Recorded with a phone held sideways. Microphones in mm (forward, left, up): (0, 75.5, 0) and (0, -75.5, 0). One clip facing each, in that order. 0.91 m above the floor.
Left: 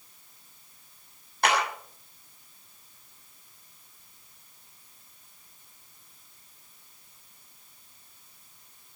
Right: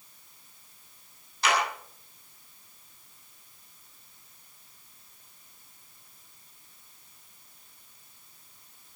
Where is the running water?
I don't hear running water.